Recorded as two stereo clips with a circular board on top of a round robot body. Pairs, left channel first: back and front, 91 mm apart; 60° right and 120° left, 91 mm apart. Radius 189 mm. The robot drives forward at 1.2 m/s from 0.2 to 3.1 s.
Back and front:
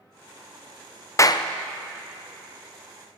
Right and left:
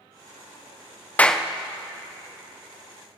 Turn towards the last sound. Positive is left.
turn(degrees=-175)